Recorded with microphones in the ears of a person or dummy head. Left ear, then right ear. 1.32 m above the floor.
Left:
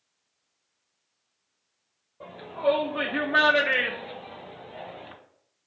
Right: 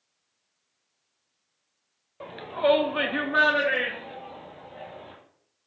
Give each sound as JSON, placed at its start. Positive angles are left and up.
{"t": 2.2, "sound": "a shout", "side_deg": -70, "distance_m": 1.0}